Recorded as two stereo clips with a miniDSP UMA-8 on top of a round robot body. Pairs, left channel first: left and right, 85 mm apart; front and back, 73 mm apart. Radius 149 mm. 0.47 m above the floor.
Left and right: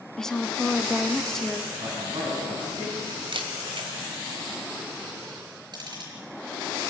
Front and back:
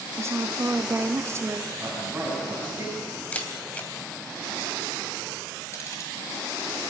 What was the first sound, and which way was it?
A woman speaking, 170° left.